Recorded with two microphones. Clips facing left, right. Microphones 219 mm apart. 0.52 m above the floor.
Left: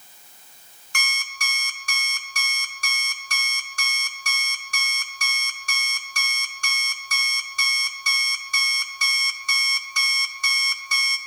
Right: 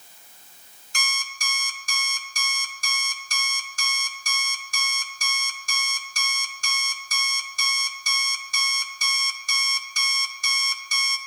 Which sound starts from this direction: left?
An alarm clock, at 0.9 s.